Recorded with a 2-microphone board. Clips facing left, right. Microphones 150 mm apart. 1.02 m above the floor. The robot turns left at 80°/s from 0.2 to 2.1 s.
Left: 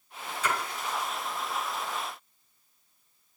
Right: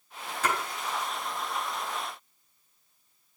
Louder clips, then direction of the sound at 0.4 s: Right 1 dB; 65° right (ahead or behind).